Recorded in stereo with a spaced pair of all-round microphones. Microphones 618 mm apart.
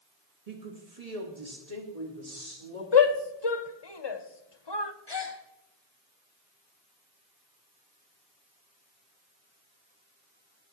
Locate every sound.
0.5 s a woman speaking: 70° right (ahead or behind), 2.5 m; by 2.8 s 80° right, 4.5 m
2.9 s a shout: 40° left (ahead or behind), 1.1 m
5.1 s a gasp: 40° left (ahead or behind), 2.5 m